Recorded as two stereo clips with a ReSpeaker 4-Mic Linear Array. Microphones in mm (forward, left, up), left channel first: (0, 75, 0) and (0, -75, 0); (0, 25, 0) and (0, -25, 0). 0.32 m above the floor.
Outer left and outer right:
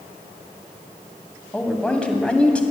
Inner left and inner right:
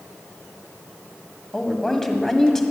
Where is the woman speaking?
5° left (ahead or behind), 1.6 m.